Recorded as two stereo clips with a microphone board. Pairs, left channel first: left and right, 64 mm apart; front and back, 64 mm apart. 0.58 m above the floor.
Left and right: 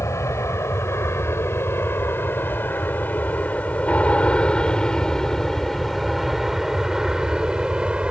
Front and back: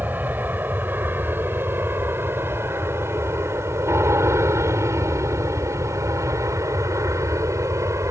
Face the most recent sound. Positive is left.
turn(degrees=-160)